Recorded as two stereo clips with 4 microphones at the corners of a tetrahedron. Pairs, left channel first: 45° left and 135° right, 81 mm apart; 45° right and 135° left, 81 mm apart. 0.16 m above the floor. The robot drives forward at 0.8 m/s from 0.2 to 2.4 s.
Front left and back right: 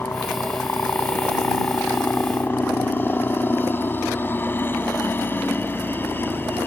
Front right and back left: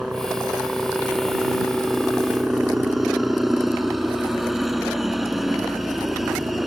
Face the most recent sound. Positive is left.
turn(degrees=50)